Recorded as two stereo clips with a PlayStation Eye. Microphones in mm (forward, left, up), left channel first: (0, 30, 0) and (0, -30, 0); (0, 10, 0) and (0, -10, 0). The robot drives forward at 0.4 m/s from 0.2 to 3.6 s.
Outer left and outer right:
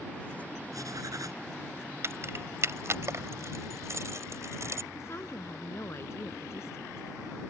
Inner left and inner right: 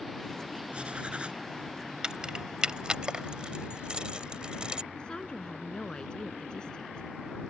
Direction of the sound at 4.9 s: 45° left (ahead or behind).